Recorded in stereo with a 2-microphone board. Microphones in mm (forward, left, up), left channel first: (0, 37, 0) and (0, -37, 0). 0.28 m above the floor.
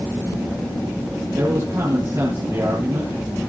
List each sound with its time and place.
1.3 s a man speaking: 45° right (ahead or behind), 7 m